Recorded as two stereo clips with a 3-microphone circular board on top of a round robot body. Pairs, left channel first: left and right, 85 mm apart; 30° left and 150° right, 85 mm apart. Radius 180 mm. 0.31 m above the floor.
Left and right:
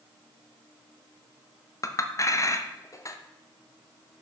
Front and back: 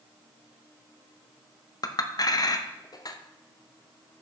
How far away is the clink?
About 0.6 m.